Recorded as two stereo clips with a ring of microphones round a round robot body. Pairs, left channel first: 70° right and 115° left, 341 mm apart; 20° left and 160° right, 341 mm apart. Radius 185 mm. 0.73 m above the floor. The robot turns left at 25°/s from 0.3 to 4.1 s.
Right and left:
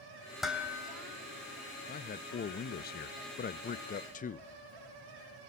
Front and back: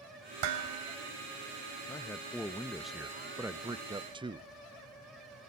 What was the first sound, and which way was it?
Dishes clattering, 155° right.